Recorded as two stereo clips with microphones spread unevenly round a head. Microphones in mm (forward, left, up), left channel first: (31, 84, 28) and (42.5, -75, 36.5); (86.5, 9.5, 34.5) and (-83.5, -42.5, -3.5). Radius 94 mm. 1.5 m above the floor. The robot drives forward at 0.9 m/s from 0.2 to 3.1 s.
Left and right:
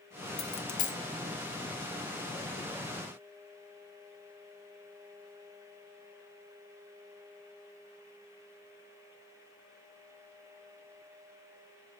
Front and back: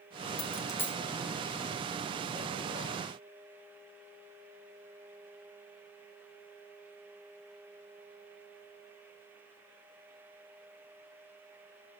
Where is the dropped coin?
50° left, 1.1 m; by 1.0 s 95° left, 1.0 m.